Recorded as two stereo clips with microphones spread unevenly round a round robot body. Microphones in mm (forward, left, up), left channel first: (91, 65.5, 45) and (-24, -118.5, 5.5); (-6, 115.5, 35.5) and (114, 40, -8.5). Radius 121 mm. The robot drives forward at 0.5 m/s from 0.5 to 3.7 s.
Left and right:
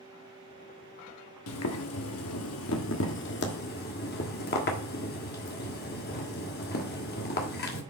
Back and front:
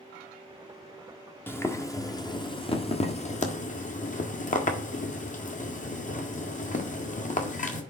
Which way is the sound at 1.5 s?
65° left.